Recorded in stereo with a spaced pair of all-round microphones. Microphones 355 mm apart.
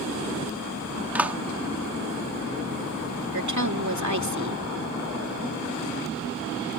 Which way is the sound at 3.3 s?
55° right (ahead or behind).